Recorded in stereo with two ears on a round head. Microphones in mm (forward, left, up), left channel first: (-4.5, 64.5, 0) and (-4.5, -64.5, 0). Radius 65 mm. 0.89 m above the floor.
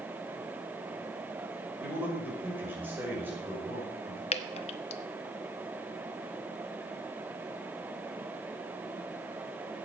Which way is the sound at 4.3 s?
45° left (ahead or behind).